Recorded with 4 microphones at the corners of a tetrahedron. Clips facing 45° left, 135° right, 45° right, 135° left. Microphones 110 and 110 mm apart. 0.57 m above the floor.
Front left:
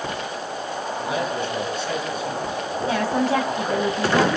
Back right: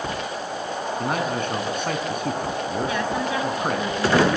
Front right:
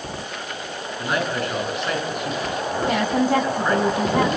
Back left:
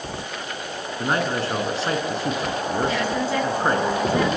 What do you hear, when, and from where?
1.0 s a man speaking: 170° right, 6.5 m
2.9 s a woman speaking: 5° right, 5 m